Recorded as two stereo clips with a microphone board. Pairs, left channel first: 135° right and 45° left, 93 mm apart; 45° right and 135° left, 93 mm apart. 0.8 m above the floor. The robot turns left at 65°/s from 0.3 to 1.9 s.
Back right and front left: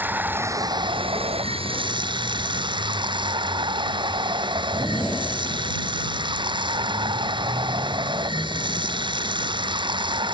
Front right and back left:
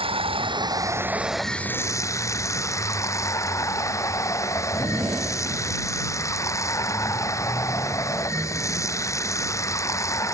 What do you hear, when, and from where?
0.0 s running water: 115° left; by 10.3 s 10° left